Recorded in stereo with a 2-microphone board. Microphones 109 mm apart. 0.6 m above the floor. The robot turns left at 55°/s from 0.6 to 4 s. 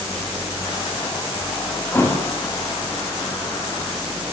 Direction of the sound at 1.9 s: 15° left (ahead or behind).